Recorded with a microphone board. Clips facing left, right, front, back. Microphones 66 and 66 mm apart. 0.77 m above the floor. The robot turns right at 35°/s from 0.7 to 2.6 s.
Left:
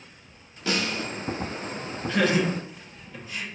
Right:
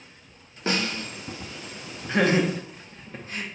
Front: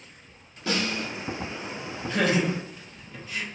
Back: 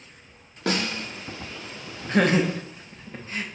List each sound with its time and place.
0.7 s a snare drum: 145° right, 0.7 m; by 1.1 s 135° right, 0.7 m
2.1 s laughter: 150° right, 0.7 m; by 3.4 s 130° right, 0.7 m